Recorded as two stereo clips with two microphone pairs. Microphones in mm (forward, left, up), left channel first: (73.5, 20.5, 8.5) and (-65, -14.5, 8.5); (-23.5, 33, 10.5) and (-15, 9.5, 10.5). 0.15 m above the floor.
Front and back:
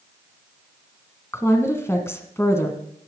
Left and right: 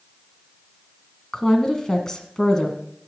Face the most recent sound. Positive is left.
turn(degrees=70)